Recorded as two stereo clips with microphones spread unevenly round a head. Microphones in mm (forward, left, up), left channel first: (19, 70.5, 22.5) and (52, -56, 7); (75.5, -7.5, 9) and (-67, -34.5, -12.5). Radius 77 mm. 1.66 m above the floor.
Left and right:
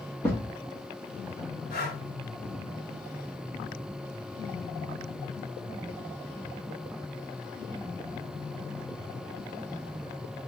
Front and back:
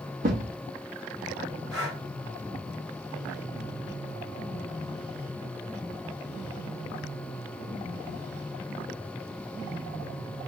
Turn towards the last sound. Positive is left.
turn(degrees=100)